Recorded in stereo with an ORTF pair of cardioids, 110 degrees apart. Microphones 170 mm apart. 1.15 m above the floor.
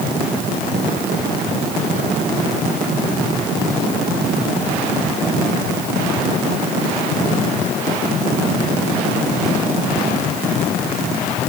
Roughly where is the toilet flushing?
No toilet flushing in this recording.